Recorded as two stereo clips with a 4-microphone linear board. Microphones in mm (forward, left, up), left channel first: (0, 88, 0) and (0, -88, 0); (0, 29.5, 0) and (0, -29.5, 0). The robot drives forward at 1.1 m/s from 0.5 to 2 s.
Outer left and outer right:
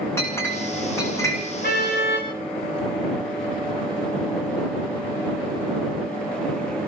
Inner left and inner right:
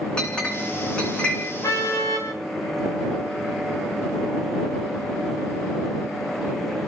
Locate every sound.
0.2 s a clink: 15° left (ahead or behind), 5.5 m; by 1.4 s 20° left (ahead or behind), 4.5 m
1.6 s a car horn: 65° left (ahead or behind), 7.5 m; by 2.3 s 70° left (ahead or behind), 7 m